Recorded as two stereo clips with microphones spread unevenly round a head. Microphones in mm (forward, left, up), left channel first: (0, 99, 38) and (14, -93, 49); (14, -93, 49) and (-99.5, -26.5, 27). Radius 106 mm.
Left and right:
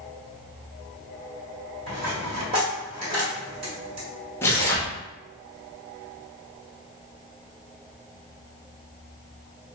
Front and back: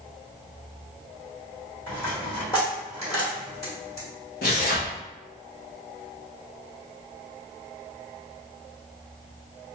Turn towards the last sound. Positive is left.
turn(degrees=15)